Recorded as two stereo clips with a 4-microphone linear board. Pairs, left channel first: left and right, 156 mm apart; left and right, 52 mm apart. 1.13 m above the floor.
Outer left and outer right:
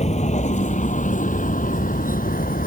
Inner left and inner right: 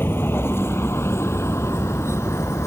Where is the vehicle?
45° left (ahead or behind); by 2.7 s 65° left (ahead or behind).